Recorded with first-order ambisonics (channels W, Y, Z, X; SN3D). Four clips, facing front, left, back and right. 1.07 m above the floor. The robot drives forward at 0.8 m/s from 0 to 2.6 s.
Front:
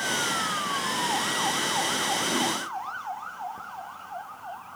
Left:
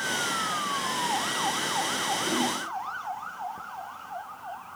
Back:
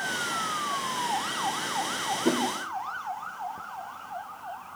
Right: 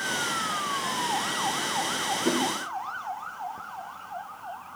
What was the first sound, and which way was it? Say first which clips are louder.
A whoosh: right 3 dB, back 5 dB; 150° right.